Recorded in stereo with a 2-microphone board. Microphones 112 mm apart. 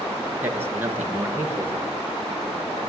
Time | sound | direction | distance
0.4 | a man speaking | 20° right (ahead or behind) | 4.5 m